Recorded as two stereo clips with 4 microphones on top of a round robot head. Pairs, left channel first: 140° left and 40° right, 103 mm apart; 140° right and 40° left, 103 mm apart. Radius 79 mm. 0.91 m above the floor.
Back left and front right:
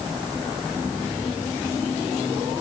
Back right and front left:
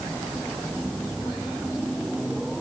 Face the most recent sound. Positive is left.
No sound to turn to.